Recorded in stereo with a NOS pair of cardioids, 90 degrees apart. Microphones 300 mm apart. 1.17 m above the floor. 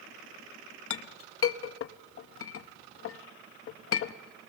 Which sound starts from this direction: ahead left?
A clink, at 0.9 s.